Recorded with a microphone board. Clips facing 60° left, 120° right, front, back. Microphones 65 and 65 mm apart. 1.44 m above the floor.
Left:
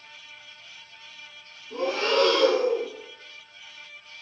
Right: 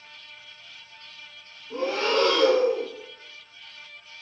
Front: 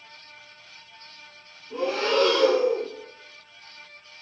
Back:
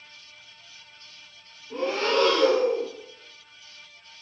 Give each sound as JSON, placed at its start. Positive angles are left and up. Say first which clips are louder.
{"t": 1.7, "sound": "breathing", "louder": "even, even", "azimuth_deg": -150, "distance_m": 1.5}